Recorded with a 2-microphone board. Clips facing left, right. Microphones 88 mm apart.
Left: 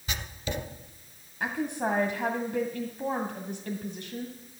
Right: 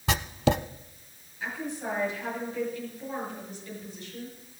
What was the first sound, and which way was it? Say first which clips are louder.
Writing: right 10 dB; 85° right.